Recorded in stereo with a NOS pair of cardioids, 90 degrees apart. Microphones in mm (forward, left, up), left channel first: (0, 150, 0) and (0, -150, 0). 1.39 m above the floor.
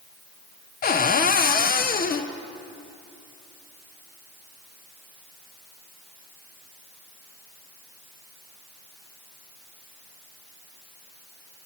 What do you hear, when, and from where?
0.8 s a cupboard door: 30° left, 0.6 m